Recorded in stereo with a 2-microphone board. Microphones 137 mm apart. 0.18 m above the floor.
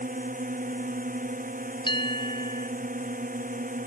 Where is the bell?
35° left (ahead or behind).